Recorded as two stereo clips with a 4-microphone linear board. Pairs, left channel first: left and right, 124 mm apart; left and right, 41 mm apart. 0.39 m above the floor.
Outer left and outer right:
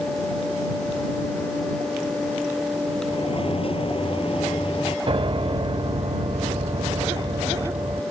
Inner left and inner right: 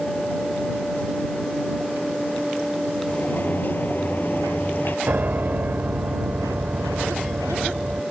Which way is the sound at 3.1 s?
50° left (ahead or behind).